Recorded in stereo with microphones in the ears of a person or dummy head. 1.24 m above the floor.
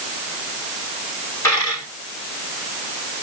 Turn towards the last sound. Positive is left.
turn(degrees=15)  # may be behind; listen again after turning